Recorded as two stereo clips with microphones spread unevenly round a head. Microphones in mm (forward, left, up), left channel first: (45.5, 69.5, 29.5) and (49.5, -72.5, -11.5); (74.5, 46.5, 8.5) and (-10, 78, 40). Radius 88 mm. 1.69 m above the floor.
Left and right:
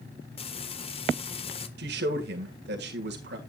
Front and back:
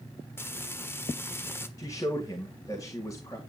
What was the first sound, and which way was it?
Frying, 50° left.